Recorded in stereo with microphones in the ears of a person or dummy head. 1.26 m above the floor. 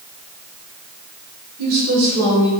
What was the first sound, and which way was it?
A woman speaking, 70° right (ahead or behind).